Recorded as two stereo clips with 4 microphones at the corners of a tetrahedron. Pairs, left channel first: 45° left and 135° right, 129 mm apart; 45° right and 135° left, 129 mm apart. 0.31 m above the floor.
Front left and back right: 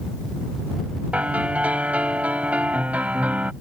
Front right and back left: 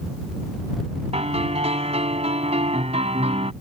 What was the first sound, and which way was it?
A piano, 150° left.